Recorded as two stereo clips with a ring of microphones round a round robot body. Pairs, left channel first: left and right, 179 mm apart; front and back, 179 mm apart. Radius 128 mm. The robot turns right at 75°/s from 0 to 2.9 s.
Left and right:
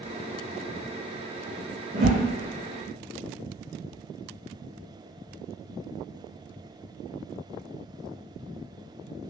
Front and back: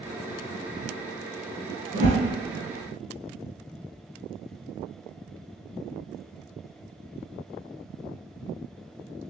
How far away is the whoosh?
About 1.0 m.